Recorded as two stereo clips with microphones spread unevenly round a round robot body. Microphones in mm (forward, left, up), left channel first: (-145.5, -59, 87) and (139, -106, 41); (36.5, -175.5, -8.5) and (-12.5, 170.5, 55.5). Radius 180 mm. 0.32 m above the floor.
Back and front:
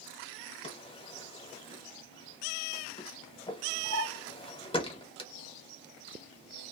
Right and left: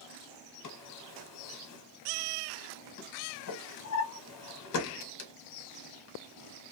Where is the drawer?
115° right, 0.9 m.